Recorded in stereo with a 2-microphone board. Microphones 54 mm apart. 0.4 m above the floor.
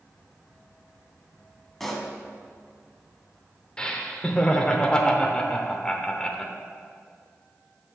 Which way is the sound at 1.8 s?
5° left (ahead or behind).